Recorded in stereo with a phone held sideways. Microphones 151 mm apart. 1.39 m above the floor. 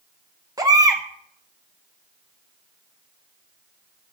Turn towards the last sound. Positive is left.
turn(degrees=-25)  # may be behind; listen again after turning